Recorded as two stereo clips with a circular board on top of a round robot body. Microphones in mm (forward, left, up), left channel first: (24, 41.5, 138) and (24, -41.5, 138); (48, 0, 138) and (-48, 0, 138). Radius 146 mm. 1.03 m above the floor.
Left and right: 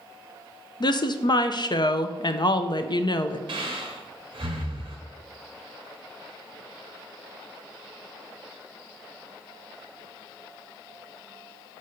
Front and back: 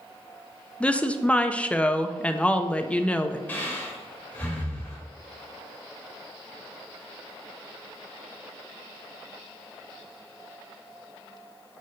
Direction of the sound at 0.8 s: 75° left.